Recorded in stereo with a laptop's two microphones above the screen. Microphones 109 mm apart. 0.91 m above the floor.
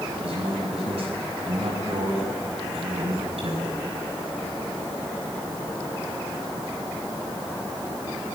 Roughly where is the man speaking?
Right.